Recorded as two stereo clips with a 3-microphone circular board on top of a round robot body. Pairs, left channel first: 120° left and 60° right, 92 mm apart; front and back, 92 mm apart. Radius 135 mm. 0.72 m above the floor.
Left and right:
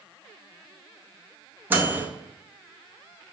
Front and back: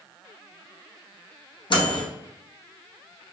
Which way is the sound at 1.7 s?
10° left.